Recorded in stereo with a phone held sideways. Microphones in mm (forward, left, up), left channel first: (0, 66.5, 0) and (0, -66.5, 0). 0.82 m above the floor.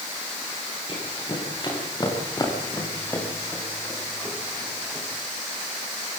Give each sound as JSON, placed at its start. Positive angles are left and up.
{"t": 0.9, "sound": "running footsteps", "side_deg": 40, "distance_m": 9.5}